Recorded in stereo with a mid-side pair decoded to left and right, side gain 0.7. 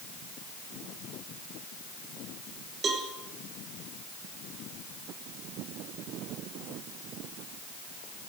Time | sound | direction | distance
2.8 | a cowbell | 30° right | 3 m